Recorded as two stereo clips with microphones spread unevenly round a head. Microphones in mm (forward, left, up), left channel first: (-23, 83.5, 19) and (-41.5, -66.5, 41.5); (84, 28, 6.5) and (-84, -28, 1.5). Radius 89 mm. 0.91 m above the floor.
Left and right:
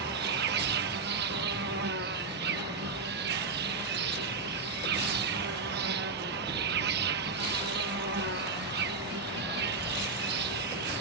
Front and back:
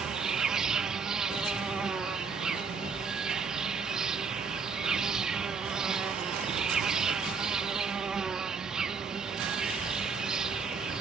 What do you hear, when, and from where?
0.0 s an insect: 75° right